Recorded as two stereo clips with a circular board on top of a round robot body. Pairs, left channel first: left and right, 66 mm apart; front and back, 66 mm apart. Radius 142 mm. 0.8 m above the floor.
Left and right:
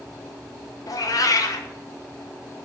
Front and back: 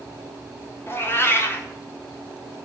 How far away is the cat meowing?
About 1.1 m.